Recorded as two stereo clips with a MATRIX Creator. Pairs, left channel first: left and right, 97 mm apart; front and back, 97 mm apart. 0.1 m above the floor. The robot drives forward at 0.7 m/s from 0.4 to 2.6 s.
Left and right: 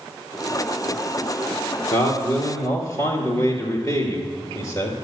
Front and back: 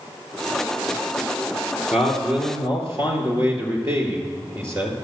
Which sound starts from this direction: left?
A man speaking, at 1.9 s.